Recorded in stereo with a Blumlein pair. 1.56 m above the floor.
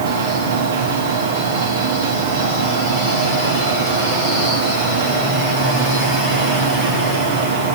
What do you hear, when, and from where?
0.0 s a machine running: 60° right, 4 m